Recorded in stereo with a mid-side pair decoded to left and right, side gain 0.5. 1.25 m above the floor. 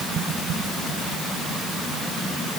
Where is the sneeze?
No sneeze in this recording.